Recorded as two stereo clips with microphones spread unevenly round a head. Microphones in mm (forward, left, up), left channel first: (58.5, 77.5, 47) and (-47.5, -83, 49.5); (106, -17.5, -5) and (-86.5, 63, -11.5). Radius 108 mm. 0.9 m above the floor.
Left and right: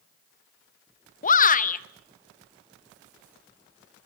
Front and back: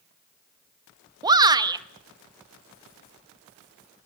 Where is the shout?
90° left, 1.3 m.